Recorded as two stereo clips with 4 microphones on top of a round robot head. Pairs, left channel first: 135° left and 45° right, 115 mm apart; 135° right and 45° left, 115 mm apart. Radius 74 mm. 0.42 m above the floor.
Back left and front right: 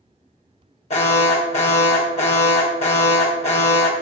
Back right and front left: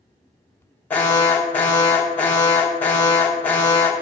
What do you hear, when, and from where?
0.9 s an alarm: 150° left, 2.5 m